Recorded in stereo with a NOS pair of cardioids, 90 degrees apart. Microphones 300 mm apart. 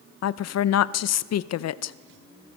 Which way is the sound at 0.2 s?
55° left.